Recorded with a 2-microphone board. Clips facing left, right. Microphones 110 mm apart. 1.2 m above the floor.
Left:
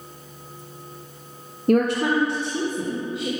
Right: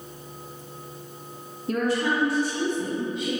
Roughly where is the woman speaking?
Left.